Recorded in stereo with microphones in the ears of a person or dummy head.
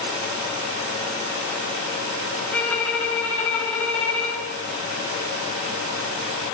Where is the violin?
5° left (ahead or behind), 1.3 m.